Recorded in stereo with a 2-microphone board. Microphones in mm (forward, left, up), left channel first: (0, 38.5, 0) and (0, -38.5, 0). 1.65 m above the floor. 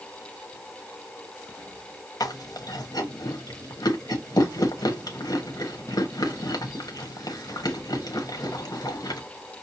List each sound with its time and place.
2.2 s chewing: 55° left (ahead or behind), 1.1 m